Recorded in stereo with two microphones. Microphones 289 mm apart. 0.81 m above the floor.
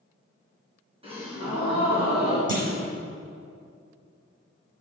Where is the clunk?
55° right (ahead or behind), 1.9 m.